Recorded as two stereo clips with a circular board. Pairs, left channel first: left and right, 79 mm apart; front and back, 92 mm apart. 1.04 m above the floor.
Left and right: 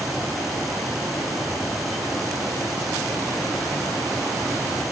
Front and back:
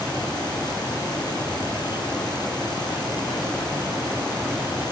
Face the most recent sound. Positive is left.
No sound to turn to.